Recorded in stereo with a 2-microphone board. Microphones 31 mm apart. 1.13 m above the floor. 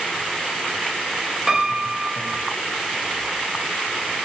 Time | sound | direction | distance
1.5 | a piano | 10° right (ahead or behind) | 2 m